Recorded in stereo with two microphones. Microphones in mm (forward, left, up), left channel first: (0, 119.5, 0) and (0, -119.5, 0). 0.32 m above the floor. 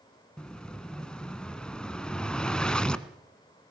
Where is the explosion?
5° left (ahead or behind), 1.1 m.